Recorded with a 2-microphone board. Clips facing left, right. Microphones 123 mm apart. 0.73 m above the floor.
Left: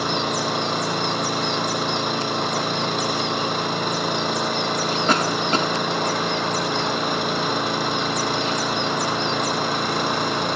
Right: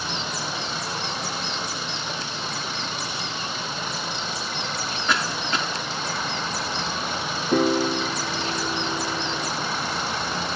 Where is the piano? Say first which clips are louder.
Right 3 dB; 75° right (ahead or behind).